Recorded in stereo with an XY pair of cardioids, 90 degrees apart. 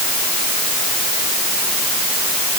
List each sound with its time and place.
Only background noise.